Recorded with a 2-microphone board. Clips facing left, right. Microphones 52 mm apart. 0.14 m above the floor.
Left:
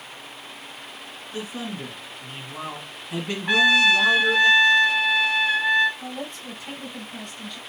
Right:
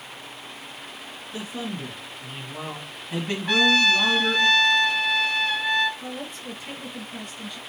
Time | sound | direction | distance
1.3 | a man speaking | 25° left (ahead or behind) | 2.5 m
3.5 | a trumpet | 15° left (ahead or behind) | 0.6 m
6.0 | a woman speaking | 5° right (ahead or behind) | 3 m